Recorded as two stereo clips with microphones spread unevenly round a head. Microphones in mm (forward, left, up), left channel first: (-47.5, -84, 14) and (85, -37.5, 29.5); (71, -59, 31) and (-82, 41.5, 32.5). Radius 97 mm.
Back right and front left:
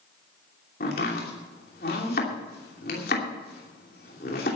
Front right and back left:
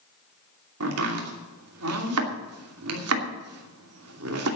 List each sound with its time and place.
0.8 s chopping: 150° left, 2.5 m